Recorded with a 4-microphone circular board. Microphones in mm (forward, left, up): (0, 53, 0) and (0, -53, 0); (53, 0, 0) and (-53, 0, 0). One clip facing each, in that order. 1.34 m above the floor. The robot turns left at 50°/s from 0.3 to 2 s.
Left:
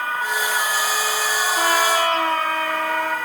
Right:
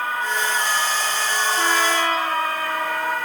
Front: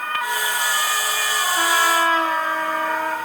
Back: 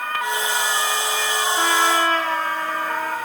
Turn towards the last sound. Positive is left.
turn(degrees=75)